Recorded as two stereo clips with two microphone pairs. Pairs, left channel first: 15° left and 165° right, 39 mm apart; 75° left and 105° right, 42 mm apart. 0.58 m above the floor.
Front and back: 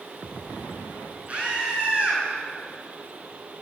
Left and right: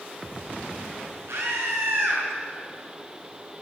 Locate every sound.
1.3 s a scream: 105° right, 8 m